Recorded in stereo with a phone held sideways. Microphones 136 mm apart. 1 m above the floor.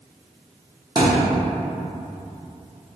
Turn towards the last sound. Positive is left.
turn(degrees=-30)  # may be behind; listen again after turning